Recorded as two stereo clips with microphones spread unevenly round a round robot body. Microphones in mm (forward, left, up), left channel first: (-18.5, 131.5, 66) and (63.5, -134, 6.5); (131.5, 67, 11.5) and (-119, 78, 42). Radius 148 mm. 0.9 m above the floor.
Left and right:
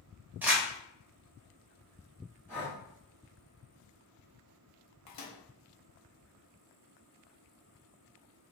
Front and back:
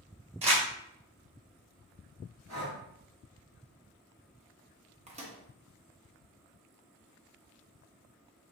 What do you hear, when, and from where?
0.4 s crumpling: 175° right, 0.7 m
2.5 s breathing: 160° right, 1.8 m
5.1 s a microwave: 110° left, 1.1 m